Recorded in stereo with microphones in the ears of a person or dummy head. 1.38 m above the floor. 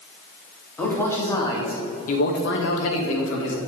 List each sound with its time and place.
0.8 s a man speaking: 5° left (ahead or behind), 3 m; by 3.6 s 70° left (ahead or behind), 2.5 m